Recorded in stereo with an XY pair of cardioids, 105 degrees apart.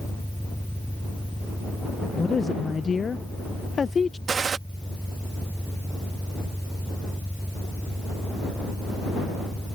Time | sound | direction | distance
0.0 | an engine running | straight ahead | ?
2.2 | a woman speaking | 35° left | ?
4.3 | a gunshot | 40° right | ?